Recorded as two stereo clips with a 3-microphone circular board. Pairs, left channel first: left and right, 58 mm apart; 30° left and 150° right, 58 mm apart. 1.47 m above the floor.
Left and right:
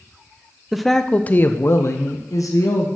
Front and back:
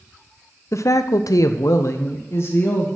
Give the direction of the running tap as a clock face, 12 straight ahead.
No running tap in this recording.